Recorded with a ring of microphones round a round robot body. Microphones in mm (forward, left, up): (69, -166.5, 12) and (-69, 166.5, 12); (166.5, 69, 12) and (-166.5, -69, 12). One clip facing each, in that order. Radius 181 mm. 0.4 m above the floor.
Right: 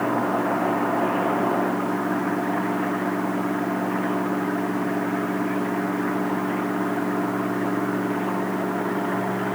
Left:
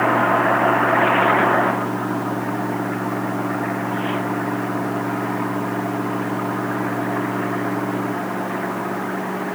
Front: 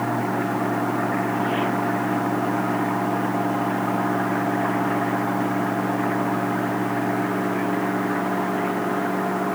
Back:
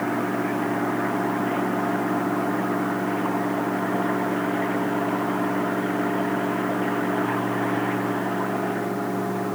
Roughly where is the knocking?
No knocking in this recording.